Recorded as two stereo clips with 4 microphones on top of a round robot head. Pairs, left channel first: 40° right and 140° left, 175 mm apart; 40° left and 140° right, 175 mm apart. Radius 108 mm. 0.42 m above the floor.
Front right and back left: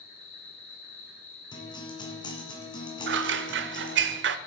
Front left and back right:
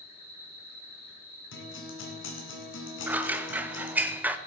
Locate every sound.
0.0 s an insect: 5° right, 6.5 m
1.5 s a guitar: 25° left, 2.5 m
3.1 s scissors: 140° left, 0.7 m